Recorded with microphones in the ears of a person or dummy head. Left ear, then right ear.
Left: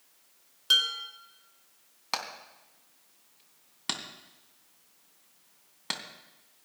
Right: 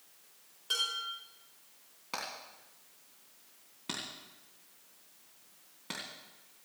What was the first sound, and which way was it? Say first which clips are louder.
Dishes clattering: left 8 dB; 45° left (ahead or behind).